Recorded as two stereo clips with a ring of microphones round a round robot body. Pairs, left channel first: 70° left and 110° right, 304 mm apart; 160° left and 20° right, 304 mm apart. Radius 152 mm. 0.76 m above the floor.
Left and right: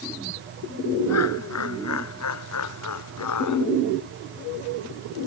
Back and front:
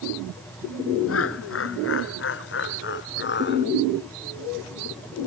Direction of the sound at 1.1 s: 110° left.